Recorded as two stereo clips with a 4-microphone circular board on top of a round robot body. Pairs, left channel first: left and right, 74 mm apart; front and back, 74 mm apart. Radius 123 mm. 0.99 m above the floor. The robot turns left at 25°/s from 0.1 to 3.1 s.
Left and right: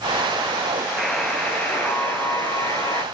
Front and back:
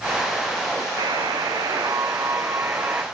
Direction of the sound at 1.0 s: 175° left.